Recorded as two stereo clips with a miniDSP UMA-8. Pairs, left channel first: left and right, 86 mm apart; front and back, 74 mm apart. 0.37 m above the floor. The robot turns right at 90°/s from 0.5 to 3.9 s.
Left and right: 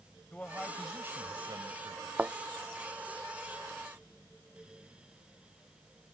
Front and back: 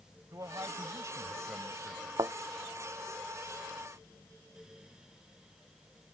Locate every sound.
0.3 s a man speaking: 160° left; by 2.1 s 60° right
2.2 s a thud: 165° right; by 2.3 s 150° right